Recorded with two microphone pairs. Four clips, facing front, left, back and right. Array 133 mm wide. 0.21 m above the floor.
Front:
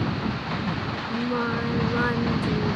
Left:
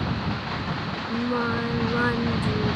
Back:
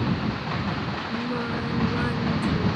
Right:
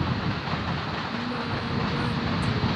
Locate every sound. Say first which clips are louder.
1.1 s singing: left 9 dB, front 4 dB; 50° left